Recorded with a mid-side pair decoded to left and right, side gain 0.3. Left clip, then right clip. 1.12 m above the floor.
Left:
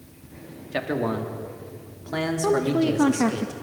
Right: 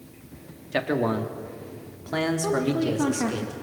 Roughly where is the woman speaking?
Ahead left.